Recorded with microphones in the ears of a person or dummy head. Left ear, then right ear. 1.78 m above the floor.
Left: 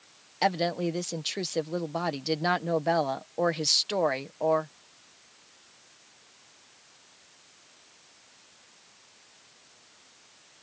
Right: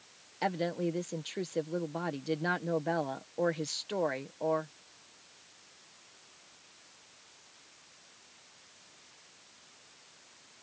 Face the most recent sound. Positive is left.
turn(degrees=25)  # may be behind; listen again after turning